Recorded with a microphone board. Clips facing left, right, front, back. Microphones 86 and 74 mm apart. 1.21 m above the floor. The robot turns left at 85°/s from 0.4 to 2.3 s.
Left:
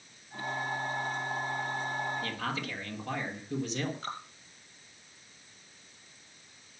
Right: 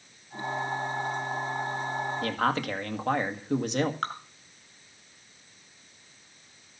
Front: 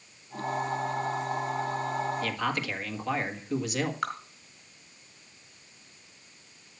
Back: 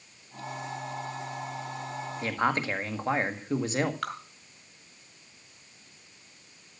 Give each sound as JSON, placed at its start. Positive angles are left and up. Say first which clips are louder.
{"t": 2.2, "sound": "a man speaking", "louder": "right 8 dB, back 3 dB", "azimuth_deg": -110, "distance_m": 1.7}
{"t": 4.0, "sound": "dripping", "louder": "right 7 dB, front 2 dB", "azimuth_deg": -80, "distance_m": 5.0}